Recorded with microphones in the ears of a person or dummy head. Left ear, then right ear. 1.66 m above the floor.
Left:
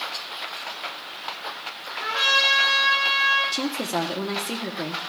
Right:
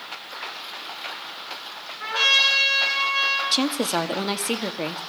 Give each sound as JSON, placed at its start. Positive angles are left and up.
{"t": 2.0, "sound": "a trumpet", "side_deg": -80, "distance_m": 7.5}
{"t": 3.5, "sound": "a woman speaking", "side_deg": -50, "distance_m": 0.9}